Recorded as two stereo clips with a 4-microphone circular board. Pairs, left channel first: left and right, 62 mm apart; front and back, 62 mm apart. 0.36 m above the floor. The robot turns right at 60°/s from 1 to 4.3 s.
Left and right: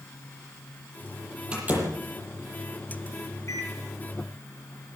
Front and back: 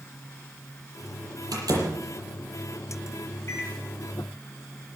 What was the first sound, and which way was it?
A door slam, 165° right.